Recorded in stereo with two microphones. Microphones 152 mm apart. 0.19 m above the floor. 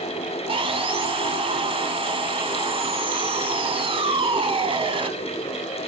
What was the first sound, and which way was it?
Sawing, 40° right (ahead or behind).